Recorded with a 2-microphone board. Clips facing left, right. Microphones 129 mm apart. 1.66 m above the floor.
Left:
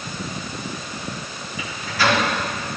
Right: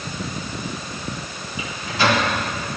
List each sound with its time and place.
1.6 s a microwave: 25° right (ahead or behind), 3.5 m